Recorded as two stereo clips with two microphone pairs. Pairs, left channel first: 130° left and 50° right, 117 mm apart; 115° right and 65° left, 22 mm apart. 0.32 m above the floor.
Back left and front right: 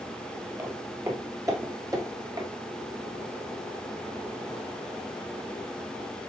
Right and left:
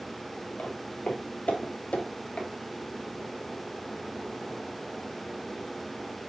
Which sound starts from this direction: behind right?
Footsteps, at 0.6 s.